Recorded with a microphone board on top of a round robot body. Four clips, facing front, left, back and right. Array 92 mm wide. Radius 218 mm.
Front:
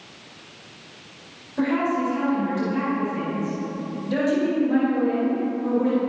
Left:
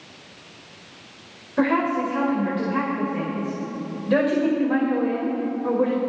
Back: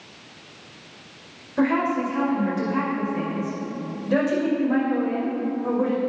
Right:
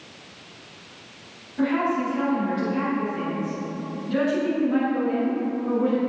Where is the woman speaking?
115° left, 5.5 m.